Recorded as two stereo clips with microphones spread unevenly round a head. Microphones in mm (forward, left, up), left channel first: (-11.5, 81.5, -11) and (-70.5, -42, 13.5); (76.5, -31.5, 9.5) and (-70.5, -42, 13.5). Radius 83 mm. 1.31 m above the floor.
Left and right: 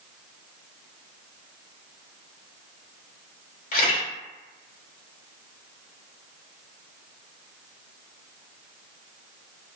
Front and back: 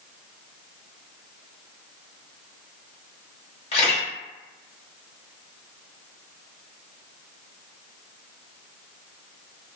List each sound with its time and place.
3.7 s a camera shutter: 45° left, 1.2 m